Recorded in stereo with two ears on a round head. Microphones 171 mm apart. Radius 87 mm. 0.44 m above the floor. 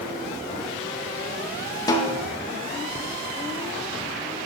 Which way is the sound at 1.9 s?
20° left (ahead or behind).